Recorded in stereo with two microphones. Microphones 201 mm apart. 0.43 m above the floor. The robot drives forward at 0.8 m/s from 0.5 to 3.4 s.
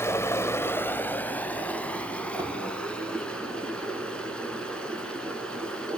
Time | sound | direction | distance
0.0 | running water | 10° left (ahead or behind) | 1.1 m
2.4 | a thud | 15° right (ahead or behind) | 5.5 m